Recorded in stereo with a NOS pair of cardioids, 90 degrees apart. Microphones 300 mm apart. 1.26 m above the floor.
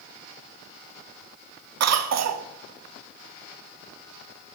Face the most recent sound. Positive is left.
turn(degrees=-60)